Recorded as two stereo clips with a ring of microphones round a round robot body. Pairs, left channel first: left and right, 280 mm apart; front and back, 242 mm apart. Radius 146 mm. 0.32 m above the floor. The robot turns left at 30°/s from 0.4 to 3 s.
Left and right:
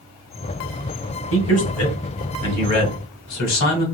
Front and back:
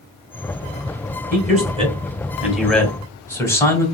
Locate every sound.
1.3 s a man speaking: 130° left, 1.8 m; by 3.9 s 80° left, 1.8 m